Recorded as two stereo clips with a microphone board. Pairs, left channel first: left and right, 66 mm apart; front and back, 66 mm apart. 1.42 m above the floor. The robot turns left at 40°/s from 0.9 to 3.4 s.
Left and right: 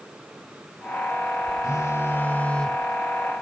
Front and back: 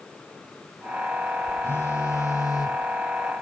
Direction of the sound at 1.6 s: 55° left.